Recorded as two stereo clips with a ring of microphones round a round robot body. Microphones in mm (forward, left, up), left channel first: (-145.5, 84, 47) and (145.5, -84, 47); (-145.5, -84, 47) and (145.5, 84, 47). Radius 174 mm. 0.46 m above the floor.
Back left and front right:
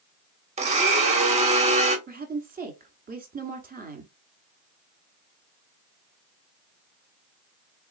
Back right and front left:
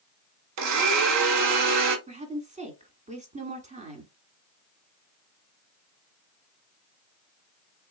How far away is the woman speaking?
About 1.4 m.